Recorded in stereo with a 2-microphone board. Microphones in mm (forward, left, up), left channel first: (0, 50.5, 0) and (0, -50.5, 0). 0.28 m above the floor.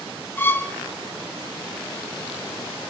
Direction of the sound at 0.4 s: 20° left (ahead or behind).